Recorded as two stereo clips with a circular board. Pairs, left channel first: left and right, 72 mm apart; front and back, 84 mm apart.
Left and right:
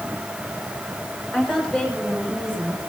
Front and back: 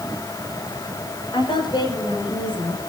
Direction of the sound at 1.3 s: 20° left.